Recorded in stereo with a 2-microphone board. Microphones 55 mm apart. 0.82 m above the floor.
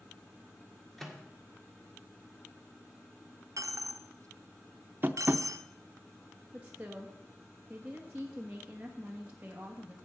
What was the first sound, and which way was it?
A microwave, 5° left (ahead or behind).